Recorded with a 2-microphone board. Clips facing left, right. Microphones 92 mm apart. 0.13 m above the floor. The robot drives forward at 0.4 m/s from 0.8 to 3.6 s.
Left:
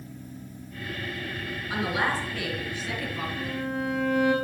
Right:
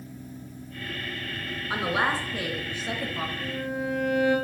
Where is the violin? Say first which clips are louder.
Left 1 dB; 75° left (ahead or behind), 4.5 m.